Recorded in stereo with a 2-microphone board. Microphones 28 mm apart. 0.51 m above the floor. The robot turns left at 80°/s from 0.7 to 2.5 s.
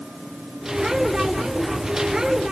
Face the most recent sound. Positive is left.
No sound to turn to.